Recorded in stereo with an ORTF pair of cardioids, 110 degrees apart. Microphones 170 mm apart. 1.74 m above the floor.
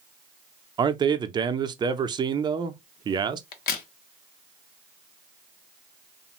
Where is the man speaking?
25° right, 0.5 m.